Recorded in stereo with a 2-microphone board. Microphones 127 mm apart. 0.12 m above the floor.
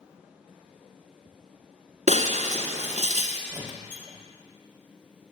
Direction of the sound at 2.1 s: 60° right (ahead or behind).